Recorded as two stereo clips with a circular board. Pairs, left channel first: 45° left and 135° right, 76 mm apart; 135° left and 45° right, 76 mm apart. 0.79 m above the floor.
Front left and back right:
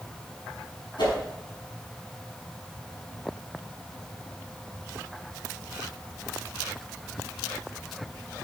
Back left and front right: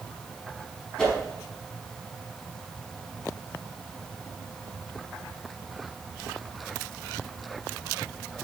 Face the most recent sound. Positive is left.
turn(degrees=55)